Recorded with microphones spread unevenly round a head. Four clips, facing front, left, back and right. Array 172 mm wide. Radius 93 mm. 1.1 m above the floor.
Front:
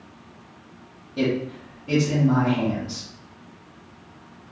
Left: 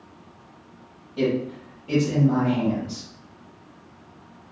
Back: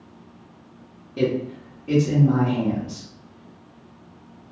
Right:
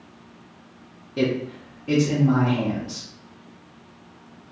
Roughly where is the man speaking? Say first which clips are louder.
Even, back 1 dB; right.